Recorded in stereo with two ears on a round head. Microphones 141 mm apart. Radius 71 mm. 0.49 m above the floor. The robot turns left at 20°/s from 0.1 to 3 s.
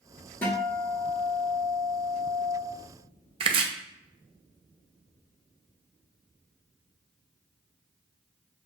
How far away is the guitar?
About 1.1 m.